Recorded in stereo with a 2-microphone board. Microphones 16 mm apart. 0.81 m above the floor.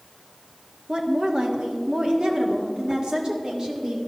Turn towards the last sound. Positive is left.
turn(degrees=-50)  # may be behind; listen again after turning